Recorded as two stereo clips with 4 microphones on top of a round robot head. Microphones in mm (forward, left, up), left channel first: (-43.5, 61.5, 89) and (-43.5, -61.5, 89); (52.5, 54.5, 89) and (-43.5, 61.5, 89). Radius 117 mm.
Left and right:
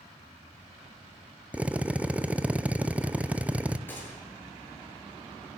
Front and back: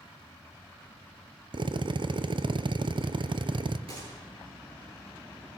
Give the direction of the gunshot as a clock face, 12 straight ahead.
7 o'clock.